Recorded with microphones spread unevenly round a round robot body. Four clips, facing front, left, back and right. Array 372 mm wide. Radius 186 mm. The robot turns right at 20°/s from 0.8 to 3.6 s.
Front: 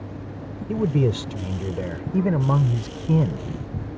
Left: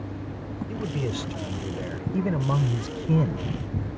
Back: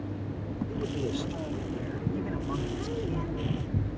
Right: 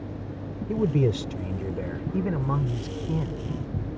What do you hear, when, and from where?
0.7 s a man speaking: 25° right; by 3.5 s 30° left